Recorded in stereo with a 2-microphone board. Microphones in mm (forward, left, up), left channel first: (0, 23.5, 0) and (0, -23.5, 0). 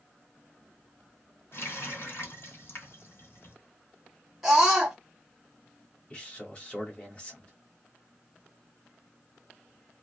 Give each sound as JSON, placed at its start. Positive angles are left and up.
{"t": 1.5, "sound": "a running tap", "side_deg": 55, "distance_m": 1.5}
{"t": 4.4, "sound": "a scream", "side_deg": -5, "distance_m": 1.7}
{"t": 6.1, "sound": "a man speaking", "side_deg": 30, "distance_m": 1.6}